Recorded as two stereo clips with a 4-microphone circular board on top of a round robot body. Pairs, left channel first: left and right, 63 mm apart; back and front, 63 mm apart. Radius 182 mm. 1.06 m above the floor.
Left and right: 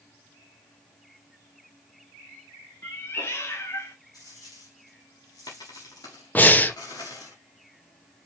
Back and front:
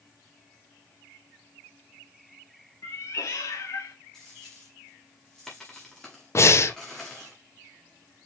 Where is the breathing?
150° left, 1.1 m.